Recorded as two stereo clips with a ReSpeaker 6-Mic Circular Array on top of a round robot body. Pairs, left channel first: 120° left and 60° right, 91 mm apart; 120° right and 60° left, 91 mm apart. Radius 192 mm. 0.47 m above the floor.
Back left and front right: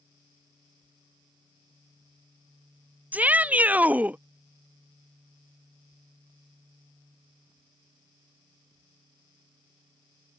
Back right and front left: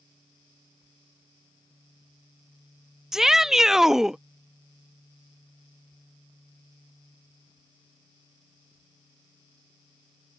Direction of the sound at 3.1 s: 20° right.